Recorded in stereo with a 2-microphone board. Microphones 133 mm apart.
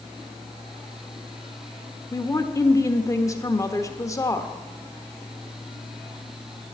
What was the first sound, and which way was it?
A woman speaking, 25° left (ahead or behind).